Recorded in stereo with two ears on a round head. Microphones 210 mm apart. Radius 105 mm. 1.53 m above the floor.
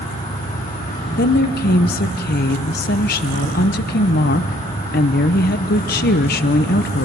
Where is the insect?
35° left (ahead or behind), 3.5 m.